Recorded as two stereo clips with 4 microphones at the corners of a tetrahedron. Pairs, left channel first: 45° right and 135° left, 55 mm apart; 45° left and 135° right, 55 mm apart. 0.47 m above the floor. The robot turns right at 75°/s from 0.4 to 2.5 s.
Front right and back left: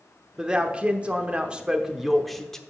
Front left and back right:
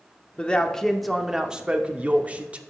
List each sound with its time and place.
0.4 s a man speaking: 80° left, 0.8 m; by 2.6 s 120° right, 0.8 m